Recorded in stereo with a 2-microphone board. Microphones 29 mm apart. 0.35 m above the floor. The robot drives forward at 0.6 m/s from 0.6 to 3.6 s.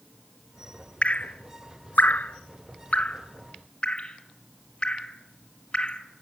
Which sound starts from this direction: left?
Dripping, at 1.0 s.